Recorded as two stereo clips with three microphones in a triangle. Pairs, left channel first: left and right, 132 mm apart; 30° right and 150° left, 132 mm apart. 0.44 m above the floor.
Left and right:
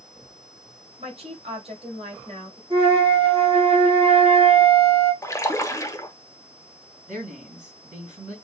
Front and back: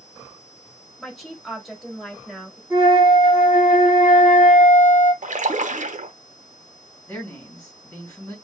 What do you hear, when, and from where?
1.0 s a woman speaking: 120° right, 1.7 m
2.7 s a flute: 135° right, 2.5 m
5.2 s a splash: 155° left, 0.8 m
7.1 s a man speaking: 110° right, 3 m